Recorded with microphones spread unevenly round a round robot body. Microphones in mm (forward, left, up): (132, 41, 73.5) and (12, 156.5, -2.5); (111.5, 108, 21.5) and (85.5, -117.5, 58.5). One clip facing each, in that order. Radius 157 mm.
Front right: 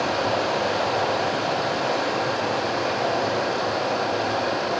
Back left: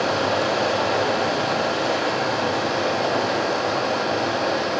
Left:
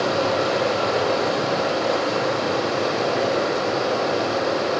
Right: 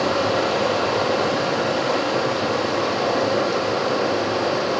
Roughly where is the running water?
Behind.